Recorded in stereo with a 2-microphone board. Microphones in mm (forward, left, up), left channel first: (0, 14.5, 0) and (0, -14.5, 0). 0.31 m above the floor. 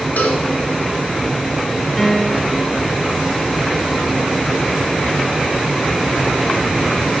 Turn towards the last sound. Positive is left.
turn(degrees=5)  # may be behind; listen again after turning